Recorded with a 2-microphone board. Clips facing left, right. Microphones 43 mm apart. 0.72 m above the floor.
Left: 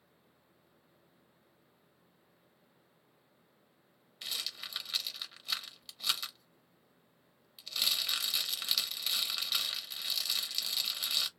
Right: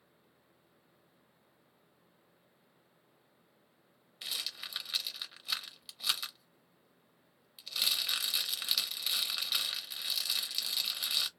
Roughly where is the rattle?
Centre.